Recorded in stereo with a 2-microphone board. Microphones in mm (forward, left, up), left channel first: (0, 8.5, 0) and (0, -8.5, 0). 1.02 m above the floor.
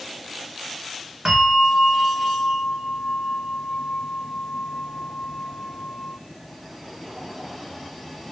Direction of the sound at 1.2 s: 55° right (ahead or behind).